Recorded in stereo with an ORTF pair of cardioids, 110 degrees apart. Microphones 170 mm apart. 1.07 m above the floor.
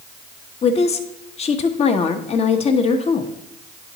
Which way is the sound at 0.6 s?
40° left.